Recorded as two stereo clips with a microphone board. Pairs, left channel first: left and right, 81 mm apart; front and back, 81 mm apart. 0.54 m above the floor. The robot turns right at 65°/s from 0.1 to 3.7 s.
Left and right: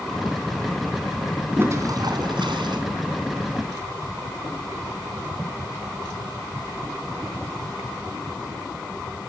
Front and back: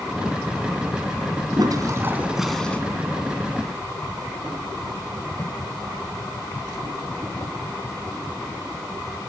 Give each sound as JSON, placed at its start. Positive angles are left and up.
{"t": 1.6, "sound": "a toilet flushing", "azimuth_deg": -150, "distance_m": 3.0}